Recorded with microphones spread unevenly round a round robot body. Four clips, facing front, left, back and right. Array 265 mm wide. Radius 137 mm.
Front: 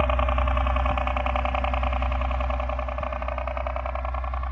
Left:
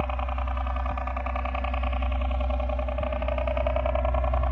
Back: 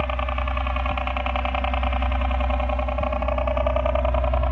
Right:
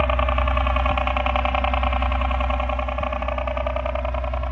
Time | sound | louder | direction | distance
0.0 | a helicopter | right 9 dB, front 2 dB | 75° right | ?